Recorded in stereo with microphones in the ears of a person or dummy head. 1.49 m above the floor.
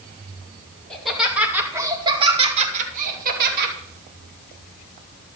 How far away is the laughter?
About 2.5 m.